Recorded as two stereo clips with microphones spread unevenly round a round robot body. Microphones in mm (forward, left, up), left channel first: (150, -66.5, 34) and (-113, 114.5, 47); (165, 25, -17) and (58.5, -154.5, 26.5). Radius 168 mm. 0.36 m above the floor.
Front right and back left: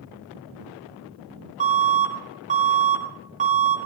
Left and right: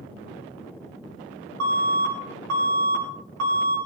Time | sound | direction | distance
1.6 | an alarm | 145° right | 3 m